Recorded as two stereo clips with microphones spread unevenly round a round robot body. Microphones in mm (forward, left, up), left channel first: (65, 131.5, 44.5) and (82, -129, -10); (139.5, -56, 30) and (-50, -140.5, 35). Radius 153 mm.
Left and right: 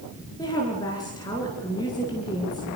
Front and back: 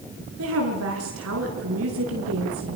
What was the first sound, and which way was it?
A woman speaking, 175° left.